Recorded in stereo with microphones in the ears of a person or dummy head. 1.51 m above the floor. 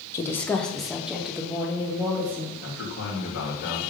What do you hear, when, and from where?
0.1 s a woman speaking: 25° left (ahead or behind), 0.8 m; by 2.5 s 5° right (ahead or behind), 2 m
2.6 s a man speaking: 60° left (ahead or behind), 3 m